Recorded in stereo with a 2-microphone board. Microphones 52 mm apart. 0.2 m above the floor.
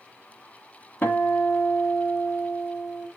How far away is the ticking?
I don't hear ticking.